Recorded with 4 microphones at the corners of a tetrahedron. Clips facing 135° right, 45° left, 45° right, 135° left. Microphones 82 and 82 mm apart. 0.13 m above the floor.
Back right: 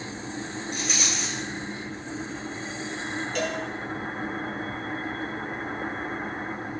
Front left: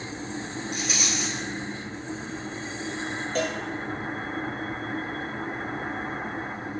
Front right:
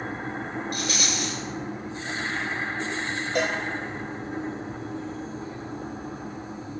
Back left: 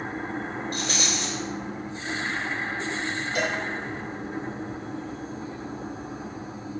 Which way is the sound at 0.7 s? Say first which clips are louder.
Front left 1 dB, even; 135° left.